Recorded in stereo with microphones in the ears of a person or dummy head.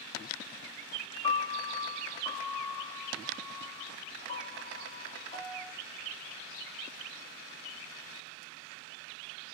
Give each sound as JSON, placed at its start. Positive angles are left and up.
{"t": 1.2, "sound": "a piano", "side_deg": 30, "distance_m": 1.2}